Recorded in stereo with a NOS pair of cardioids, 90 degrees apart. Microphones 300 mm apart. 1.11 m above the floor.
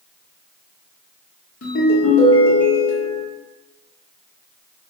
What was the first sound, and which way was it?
A ringtone, 50° left.